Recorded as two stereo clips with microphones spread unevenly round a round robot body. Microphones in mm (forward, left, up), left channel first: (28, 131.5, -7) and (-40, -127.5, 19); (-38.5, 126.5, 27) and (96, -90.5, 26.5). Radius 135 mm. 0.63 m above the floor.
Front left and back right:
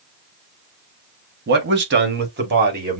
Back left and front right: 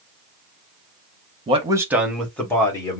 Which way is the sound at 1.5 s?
100° right.